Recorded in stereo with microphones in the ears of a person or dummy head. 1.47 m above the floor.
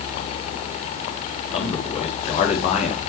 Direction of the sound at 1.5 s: 25° left (ahead or behind).